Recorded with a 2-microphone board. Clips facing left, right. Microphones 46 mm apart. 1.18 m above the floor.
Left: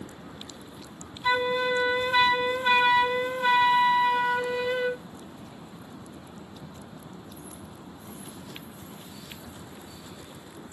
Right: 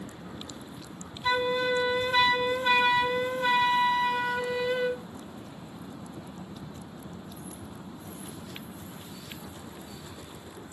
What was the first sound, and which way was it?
A flute, 10° left (ahead or behind).